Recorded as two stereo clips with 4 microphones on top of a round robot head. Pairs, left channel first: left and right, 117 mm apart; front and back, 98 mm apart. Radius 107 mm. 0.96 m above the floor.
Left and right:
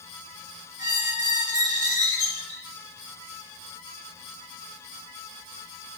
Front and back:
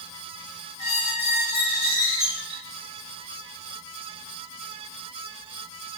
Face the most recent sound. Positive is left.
turn(degrees=-35)